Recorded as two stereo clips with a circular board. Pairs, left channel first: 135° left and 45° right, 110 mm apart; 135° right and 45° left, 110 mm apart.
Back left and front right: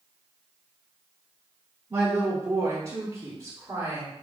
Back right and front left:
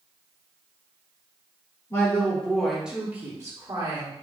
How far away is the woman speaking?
About 1.1 m.